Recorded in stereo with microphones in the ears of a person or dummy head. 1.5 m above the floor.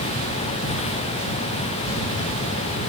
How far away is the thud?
No thud in this recording.